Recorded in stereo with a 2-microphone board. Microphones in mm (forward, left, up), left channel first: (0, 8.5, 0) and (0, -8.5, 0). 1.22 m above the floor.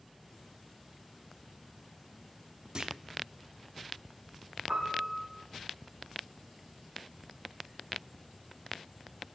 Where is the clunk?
45° right (ahead or behind), 1.0 m.